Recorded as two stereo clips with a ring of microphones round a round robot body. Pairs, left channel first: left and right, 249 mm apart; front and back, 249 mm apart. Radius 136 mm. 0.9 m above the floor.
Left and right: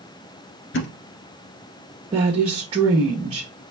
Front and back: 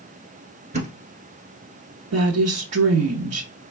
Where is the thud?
120° left, 1.5 m.